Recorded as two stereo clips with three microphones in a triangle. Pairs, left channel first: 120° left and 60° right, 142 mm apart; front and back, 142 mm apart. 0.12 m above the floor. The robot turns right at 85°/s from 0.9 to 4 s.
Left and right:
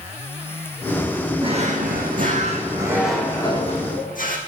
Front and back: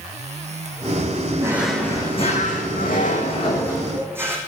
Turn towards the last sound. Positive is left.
turn(degrees=105)